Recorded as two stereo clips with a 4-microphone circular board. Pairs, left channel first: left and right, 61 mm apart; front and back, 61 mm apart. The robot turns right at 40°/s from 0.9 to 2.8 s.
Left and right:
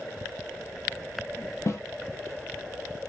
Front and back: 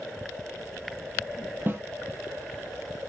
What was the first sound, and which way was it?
A snare drum, 125° left.